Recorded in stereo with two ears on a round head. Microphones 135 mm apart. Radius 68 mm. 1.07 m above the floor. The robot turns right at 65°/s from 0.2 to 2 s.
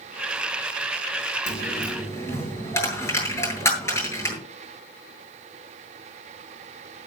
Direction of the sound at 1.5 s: 55° left (ahead or behind).